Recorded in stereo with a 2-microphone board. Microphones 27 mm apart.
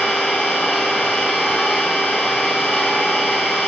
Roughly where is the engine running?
Left.